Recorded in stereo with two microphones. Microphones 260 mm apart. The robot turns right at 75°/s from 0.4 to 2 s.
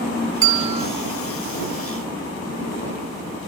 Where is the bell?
110° left; by 0.9 s 145° left.